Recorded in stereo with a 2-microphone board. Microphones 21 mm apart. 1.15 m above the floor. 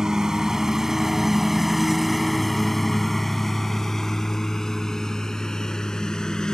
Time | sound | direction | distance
0.0 | a lawn mower | 25° right (ahead or behind) | ?